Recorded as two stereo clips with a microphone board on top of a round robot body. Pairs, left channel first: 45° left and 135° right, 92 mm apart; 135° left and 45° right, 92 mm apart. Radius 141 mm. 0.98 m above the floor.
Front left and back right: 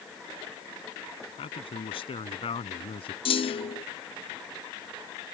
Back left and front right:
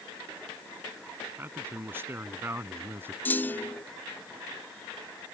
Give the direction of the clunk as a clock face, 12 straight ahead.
10 o'clock.